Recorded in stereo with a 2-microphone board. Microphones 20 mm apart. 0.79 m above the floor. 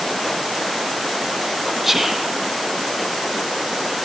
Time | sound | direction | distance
1.8 | whispering | 25° right (ahead or behind) | 0.9 m